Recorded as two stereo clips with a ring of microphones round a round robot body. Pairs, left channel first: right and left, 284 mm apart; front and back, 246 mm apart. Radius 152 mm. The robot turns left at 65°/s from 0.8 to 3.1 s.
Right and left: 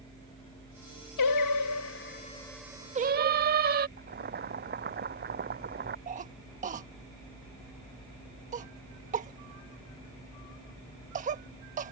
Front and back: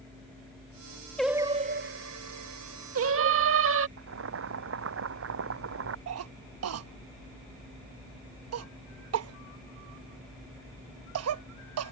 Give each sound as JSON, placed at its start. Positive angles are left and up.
{"t": 1.2, "sound": "singing", "azimuth_deg": -85}
{"t": 4.0, "sound": "boiling", "azimuth_deg": 150}
{"t": 6.1, "sound": "a cough", "azimuth_deg": 155}